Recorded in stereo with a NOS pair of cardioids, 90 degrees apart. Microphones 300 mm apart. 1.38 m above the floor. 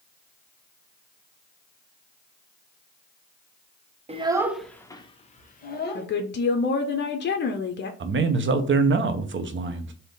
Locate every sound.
4.1 s a child speaking: 20° right, 0.7 m; by 6.1 s 35° left, 1.3 m
6.0 s a woman speaking: 35° left, 0.7 m
8.0 s a man speaking: 40° right, 0.8 m